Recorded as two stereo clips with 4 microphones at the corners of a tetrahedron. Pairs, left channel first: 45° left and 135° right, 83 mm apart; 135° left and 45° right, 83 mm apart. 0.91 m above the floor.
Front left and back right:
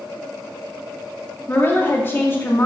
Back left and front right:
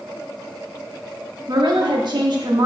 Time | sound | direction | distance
1.5 | a woman speaking | 20° right | 1.3 m